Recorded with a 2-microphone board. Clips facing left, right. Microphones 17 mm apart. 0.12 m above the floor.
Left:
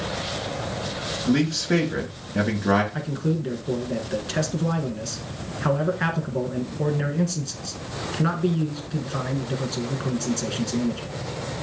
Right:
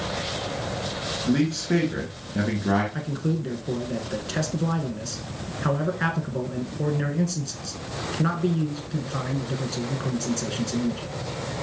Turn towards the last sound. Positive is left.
turn(degrees=5)  # may be behind; listen again after turning